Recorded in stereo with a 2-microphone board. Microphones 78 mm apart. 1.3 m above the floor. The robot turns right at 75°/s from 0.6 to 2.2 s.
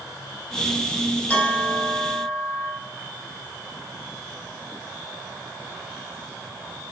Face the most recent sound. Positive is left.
turn(degrees=-130)